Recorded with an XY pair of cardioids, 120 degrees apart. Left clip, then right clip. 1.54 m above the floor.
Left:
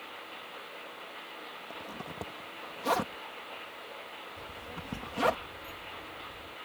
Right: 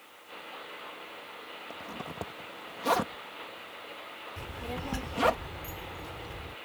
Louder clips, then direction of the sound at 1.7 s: Right 2 dB; 10° right.